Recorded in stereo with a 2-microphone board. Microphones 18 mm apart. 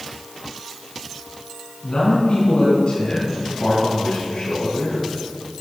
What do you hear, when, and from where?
1.8 s a man speaking: 60° left (ahead or behind), 4 m